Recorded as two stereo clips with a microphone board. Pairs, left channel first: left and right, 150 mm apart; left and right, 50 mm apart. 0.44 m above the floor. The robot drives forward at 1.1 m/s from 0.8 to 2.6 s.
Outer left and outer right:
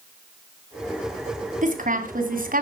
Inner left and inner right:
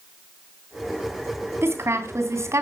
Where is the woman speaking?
60° right (ahead or behind), 3.5 m; by 2.6 s 70° right (ahead or behind), 3 m.